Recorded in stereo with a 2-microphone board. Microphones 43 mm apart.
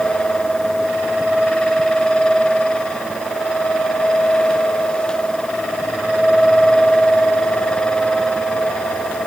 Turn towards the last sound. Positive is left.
No sound to turn to.